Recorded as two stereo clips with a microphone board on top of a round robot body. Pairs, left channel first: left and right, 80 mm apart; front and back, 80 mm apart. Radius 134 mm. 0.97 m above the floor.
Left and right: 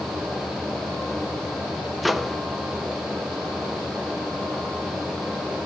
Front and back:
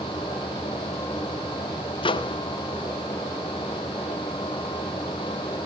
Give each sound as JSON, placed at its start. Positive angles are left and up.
{"t": 2.0, "sound": "a microwave", "azimuth_deg": 0, "distance_m": 0.6}